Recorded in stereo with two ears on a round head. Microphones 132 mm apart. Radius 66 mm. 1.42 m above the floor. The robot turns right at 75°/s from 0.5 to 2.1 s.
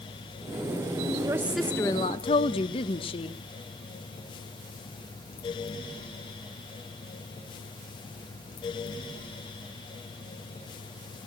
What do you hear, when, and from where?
1.2 s a woman speaking: 25° right, 1.0 m; by 3.4 s 40° left, 1.0 m